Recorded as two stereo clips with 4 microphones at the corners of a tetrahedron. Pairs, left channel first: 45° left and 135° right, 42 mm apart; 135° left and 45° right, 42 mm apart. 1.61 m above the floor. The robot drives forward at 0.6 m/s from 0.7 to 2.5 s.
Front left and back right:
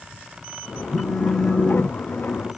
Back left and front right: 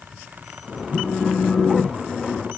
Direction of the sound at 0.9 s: 100° left.